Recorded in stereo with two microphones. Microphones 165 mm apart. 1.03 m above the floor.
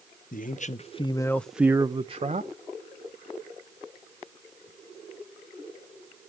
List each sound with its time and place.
0.3 s a man speaking: 55° left (ahead or behind), 0.8 m; by 2.5 s 45° right (ahead or behind), 0.8 m